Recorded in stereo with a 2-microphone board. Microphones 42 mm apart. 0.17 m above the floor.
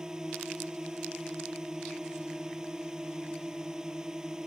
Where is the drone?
15° right (ahead or behind).